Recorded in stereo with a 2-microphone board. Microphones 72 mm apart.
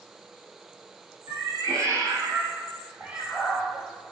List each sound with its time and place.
1.3 s a cat meowing: 55° right (ahead or behind), 1.5 m; by 4.1 s 45° left (ahead or behind), 0.6 m